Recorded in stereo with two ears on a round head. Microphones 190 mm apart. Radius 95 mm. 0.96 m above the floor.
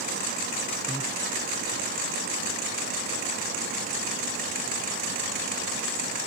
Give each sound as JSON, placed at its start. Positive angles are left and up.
{"t": 0.9, "sound": "breathing", "side_deg": -10}